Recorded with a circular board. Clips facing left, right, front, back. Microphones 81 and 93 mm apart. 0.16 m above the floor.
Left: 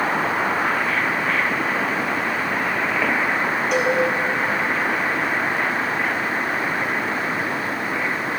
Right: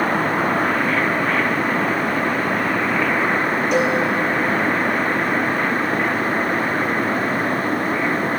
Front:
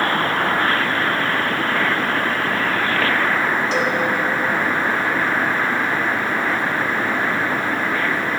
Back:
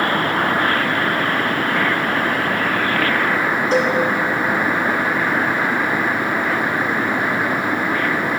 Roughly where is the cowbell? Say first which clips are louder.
Right 2 dB, back 3 dB; behind.